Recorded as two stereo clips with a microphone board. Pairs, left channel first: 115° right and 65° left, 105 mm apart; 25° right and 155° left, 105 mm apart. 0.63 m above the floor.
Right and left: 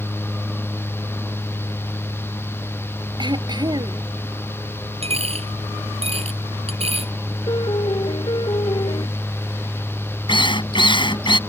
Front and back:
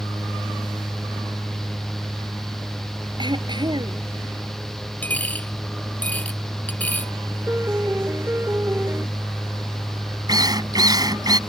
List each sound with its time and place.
3.2 s throat clearing: 115° left
5.0 s a dropped coin: 55° left
7.5 s a piano: 140° right
10.3 s a drill: 150° right